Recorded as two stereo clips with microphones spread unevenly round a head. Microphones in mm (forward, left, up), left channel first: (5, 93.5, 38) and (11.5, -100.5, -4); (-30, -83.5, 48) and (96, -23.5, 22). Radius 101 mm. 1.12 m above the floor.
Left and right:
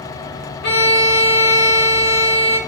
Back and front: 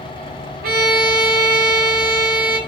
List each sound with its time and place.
0.6 s a violin: 55° left, 2.5 m